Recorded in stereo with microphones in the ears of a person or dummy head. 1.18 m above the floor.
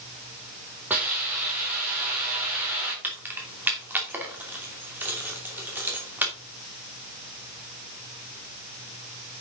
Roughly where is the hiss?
Centre.